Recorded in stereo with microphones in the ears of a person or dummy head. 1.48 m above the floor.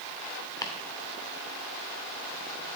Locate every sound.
0.6 s chopping: 20° left (ahead or behind), 1.5 m